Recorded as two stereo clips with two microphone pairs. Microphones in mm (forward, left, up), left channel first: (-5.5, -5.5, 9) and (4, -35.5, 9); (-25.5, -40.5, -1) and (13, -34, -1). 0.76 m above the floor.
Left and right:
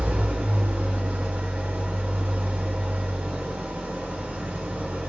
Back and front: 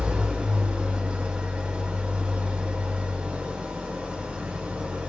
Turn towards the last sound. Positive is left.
turn(degrees=-45)